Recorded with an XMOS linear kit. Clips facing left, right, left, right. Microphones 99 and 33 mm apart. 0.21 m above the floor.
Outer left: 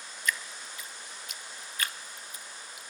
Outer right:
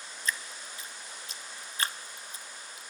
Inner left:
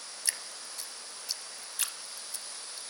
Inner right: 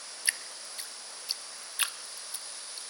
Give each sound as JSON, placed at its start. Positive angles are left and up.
{"t": 0.2, "sound": "dripping", "side_deg": -30, "distance_m": 0.6}